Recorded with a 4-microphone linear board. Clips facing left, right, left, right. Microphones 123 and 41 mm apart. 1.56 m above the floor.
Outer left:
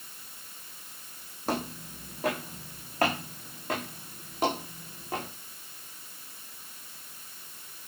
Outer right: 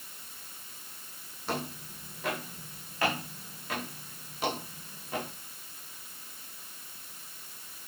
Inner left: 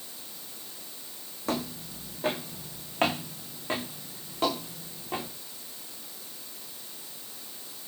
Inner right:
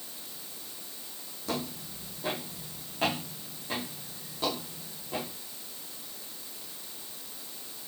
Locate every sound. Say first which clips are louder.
1.5 s footsteps: outer left 3 dB, inner left 3 dB; 40° left (ahead or behind), 6 m; by 5.2 s 45° left (ahead or behind), 9.5 m